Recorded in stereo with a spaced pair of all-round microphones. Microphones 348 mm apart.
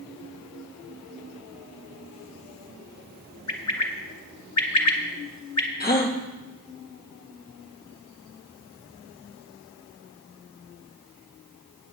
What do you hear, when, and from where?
3.5 s a bird: 50° left (ahead or behind), 1.2 m
5.8 s a gasp: 25° left (ahead or behind), 1.1 m